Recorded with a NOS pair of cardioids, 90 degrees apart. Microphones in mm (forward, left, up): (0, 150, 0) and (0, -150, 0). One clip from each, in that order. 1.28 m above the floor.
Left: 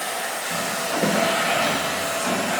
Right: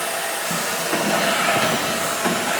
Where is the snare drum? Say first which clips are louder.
Even; 55° left, 0.9 m.